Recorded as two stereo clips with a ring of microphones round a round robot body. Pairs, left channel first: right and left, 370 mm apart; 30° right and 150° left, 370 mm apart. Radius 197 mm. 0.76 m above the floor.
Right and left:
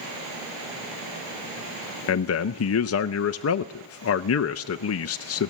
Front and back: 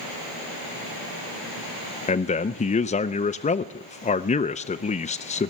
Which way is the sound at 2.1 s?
90° right.